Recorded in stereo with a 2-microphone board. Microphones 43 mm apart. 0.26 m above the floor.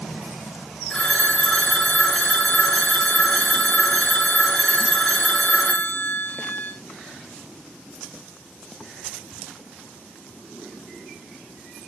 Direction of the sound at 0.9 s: 20° left (ahead or behind).